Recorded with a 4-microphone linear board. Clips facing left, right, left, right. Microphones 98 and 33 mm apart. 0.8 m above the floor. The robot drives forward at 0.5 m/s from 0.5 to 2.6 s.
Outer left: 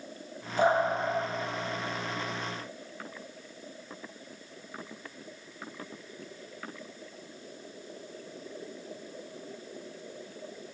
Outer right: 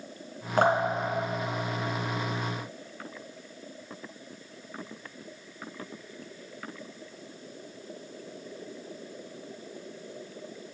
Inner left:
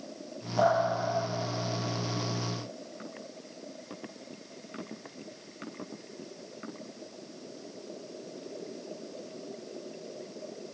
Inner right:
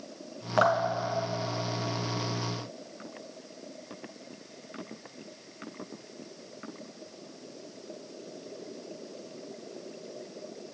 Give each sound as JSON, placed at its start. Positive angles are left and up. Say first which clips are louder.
{"t": 0.6, "sound": "dripping", "louder": "outer right 1 dB, inner right 1 dB", "side_deg": -75, "distance_m": 2.0}